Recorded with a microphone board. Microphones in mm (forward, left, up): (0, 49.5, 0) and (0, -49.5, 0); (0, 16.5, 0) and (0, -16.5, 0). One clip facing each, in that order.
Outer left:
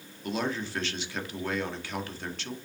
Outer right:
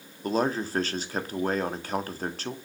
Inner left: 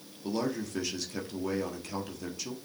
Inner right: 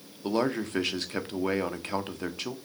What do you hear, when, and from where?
0.2 s a man speaking: 40° right (ahead or behind), 1.5 m